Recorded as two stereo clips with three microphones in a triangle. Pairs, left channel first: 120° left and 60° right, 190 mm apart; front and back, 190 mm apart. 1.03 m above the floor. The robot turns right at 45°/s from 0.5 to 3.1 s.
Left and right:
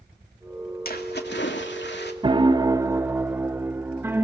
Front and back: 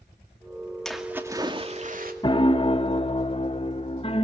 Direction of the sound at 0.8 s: 85° left.